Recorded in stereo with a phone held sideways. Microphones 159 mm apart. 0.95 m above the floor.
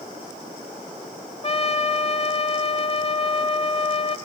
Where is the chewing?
No chewing in this recording.